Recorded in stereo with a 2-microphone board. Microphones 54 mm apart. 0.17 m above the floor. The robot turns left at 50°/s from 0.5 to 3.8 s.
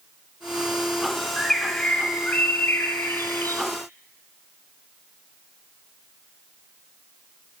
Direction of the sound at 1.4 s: 175° left.